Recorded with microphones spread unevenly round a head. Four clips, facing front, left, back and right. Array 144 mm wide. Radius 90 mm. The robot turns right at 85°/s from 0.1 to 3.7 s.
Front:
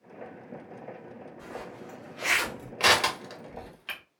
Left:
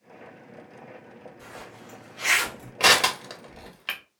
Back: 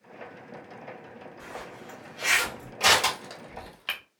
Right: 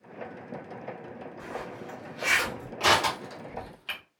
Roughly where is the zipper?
Right.